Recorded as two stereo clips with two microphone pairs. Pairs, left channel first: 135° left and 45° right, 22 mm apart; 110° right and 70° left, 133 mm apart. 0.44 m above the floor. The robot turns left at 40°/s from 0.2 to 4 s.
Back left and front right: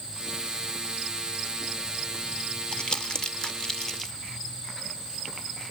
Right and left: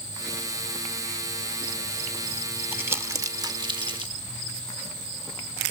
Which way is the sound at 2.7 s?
140° left.